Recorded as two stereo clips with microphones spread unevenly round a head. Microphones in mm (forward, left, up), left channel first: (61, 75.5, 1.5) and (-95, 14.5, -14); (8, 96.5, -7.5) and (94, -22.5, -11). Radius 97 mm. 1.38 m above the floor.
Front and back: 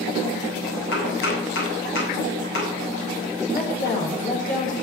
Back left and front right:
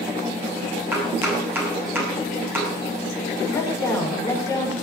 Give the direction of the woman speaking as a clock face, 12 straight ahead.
10 o'clock.